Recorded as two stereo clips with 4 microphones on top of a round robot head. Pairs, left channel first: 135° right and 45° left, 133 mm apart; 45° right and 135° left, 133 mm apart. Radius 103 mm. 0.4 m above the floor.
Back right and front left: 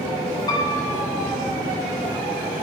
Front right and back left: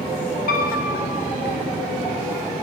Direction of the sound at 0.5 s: 70° right.